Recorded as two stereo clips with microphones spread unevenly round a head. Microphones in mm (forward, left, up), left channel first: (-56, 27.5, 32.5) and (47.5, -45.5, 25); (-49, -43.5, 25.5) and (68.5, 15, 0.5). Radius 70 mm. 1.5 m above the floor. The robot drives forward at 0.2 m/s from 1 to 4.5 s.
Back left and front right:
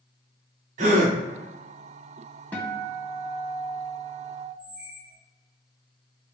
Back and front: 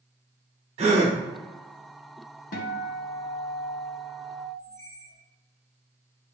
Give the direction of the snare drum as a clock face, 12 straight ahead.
No snare drum in this recording.